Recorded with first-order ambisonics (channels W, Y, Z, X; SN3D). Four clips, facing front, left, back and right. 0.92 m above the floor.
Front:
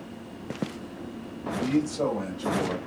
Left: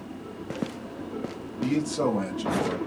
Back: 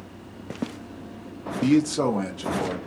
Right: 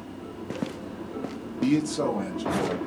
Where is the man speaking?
155° right, 0.6 m; by 2.8 s 150° left, 1.2 m.